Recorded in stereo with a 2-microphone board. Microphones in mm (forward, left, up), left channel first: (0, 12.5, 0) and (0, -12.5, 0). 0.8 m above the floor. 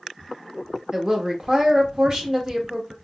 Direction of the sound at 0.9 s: 25° right (ahead or behind).